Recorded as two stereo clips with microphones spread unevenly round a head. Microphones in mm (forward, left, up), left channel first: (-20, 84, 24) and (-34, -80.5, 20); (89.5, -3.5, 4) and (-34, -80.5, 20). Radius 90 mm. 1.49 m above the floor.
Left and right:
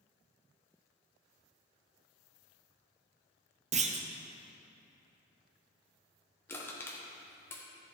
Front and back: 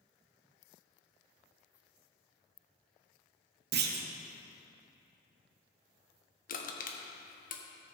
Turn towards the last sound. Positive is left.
turn(degrees=5)